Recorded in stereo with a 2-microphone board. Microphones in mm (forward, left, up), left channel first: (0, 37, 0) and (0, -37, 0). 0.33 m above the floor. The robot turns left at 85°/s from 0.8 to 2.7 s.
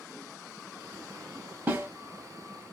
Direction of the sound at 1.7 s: 30° right (ahead or behind).